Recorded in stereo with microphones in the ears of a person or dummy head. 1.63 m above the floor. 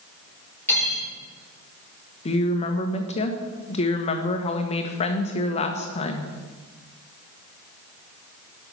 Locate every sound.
0.7 s cutlery clinking: 10° left (ahead or behind), 4 m
2.2 s a woman speaking: 40° left (ahead or behind), 1.2 m